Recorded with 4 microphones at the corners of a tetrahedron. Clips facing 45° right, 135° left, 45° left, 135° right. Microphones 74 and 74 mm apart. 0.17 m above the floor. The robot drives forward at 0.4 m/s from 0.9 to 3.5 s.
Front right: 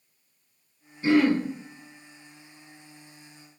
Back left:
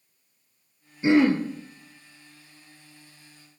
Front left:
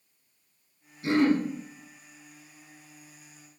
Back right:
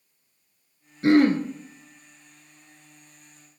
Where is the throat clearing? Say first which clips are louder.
Back left 1 dB, back right 5 dB; 155° right, 1.1 m; by 1.4 s 160° right, 1.3 m.